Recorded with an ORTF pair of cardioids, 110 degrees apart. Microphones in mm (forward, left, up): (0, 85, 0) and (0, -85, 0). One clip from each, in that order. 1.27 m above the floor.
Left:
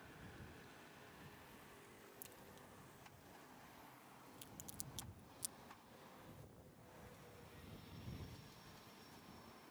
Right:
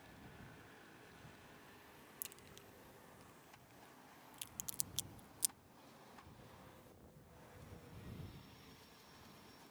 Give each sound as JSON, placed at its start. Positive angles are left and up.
{"t": 2.2, "sound": "a crack", "azimuth_deg": -45}